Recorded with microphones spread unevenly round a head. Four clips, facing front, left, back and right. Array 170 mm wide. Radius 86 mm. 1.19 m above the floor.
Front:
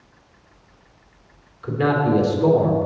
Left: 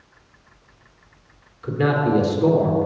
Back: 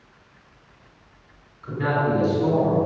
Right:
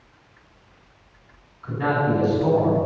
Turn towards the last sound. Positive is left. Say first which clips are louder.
# left 2 dB, front 3 dB
turn(degrees=55)